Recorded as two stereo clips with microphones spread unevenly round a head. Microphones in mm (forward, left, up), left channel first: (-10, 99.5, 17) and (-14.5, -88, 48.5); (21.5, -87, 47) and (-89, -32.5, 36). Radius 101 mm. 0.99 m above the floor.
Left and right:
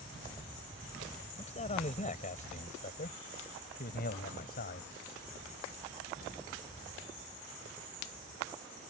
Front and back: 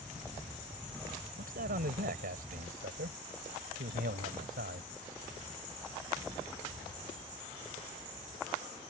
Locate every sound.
1.4 s a man speaking: 145° left; by 4.9 s 130° left